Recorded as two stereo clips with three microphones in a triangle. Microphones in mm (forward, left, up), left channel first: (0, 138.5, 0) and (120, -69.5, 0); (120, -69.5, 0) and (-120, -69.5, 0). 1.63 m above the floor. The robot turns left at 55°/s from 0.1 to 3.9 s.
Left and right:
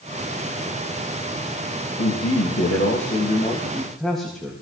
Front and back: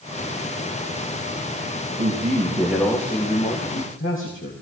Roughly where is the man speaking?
Behind left.